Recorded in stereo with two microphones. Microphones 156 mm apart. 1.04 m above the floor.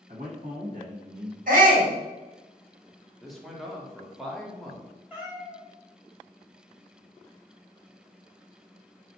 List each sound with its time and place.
0.1 s a man speaking: 60° right (ahead or behind), 1.1 m
1.5 s a shout: 60° right (ahead or behind), 1.5 m
3.2 s a man speaking: centre (ahead or behind), 0.7 m
5.1 s a cat meowing: 10° right (ahead or behind), 0.8 m